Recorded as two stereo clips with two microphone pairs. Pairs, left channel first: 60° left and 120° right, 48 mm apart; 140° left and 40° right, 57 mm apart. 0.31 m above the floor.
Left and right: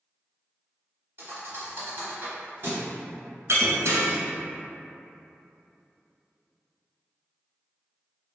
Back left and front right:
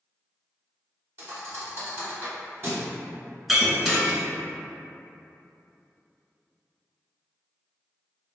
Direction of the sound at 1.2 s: 90° right.